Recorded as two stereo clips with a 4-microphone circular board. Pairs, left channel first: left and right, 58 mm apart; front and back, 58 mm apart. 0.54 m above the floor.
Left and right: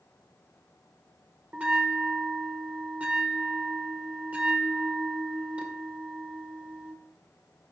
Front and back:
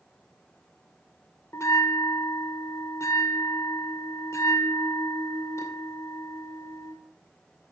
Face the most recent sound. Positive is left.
turn(degrees=-25)